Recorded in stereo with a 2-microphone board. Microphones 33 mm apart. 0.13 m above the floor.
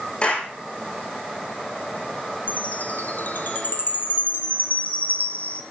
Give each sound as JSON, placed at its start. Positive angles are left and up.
{"t": 0.2, "sound": "a clap", "side_deg": 35, "distance_m": 5.0}
{"t": 2.5, "sound": "a chime", "side_deg": 70, "distance_m": 1.5}